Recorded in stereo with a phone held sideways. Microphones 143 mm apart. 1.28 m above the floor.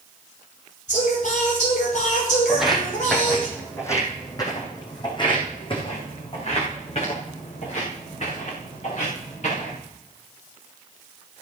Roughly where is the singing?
Left.